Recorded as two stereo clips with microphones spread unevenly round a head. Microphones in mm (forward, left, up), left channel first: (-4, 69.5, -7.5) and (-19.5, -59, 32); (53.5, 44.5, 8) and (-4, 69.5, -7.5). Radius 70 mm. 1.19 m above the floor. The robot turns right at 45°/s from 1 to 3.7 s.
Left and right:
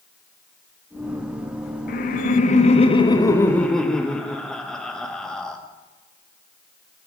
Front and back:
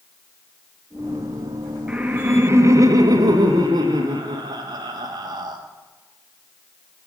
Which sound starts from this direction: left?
Laughter, at 1.9 s.